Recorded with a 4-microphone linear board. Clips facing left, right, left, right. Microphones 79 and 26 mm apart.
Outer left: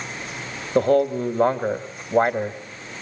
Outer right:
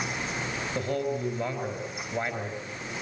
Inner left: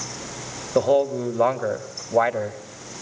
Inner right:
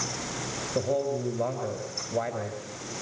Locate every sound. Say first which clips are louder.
0.8 s a man speaking: outer left 13 dB, inner left 9 dB; 55° left (ahead or behind), 1.9 m